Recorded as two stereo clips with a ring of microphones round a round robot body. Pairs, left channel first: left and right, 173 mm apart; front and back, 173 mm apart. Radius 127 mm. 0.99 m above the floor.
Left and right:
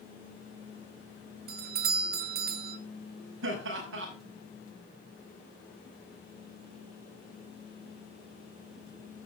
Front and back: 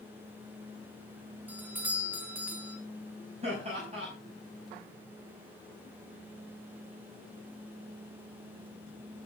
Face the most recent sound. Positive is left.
turn(degrees=-115)